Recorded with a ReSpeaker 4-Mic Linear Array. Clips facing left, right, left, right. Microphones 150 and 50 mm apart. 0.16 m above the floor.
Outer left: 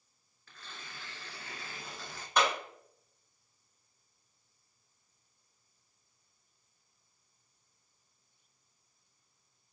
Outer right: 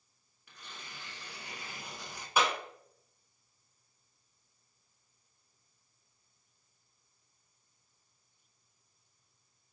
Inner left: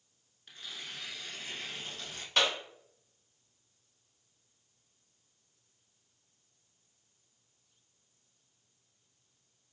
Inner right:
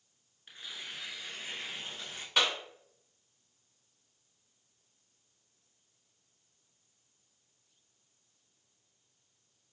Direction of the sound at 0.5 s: 15° right (ahead or behind).